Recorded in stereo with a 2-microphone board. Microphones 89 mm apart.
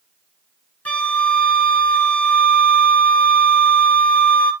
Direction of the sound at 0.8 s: 15° left (ahead or behind).